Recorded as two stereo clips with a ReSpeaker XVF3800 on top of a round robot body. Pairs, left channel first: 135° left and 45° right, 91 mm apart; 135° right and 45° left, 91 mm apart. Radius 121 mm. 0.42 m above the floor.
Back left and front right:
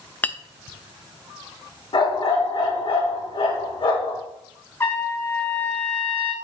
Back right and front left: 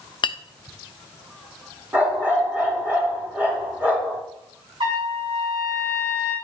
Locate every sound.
0.2 s a clink: 155° right, 0.7 m
1.9 s a dog barking: 115° left, 2.5 m
4.8 s a trumpet: 70° left, 3.5 m